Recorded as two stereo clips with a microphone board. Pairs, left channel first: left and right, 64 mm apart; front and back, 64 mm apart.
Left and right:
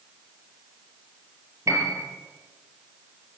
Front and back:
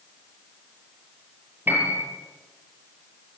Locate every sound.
1.7 s a piano: 125° right, 6 m